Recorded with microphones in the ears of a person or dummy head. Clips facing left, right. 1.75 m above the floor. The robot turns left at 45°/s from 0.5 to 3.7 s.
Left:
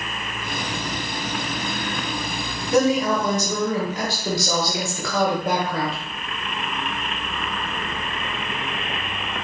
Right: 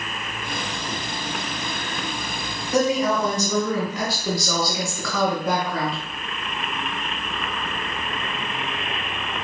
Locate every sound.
2.7 s a woman speaking: 90° left, 1.3 m; by 6.0 s 45° left, 1.3 m